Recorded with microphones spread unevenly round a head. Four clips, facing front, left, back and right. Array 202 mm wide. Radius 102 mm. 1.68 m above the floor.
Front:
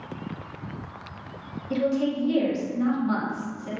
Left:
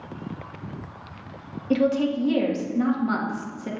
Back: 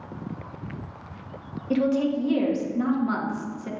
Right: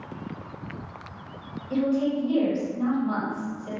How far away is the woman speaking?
About 2 m.